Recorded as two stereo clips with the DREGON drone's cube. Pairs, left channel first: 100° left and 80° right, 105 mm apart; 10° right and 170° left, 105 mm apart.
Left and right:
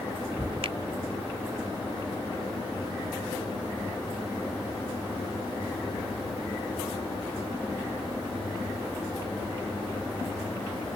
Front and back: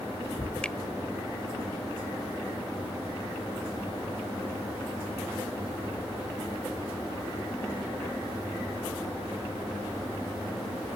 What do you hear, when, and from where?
0.6 s a finger snap: 90° right